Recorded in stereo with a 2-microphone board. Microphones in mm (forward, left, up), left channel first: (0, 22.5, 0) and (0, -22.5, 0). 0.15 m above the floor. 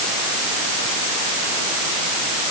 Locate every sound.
Only background noise.